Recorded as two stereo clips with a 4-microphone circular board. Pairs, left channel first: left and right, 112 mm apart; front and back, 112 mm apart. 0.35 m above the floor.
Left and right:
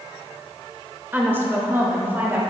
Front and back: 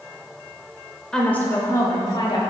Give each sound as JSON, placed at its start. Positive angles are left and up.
{"t": 1.1, "sound": "a woman speaking", "azimuth_deg": -70, "distance_m": 0.9}